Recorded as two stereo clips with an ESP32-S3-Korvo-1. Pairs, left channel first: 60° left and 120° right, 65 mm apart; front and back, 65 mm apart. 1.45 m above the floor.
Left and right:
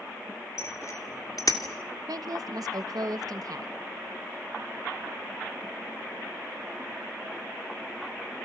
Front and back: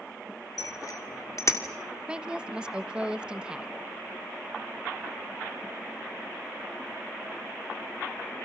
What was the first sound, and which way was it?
A bicycle bell, 15° left.